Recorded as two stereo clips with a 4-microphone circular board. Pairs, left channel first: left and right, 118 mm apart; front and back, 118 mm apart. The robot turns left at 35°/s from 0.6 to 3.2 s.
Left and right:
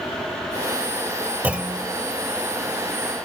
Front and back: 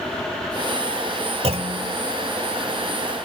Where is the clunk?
165° right, 1.1 m; by 1.9 s straight behind, 1.1 m.